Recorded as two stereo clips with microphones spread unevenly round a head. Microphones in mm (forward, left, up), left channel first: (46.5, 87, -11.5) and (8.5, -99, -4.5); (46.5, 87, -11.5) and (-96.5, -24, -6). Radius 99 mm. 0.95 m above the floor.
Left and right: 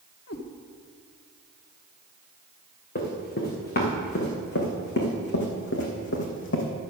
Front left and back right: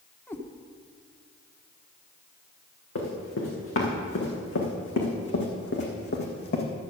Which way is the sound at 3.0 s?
35° left.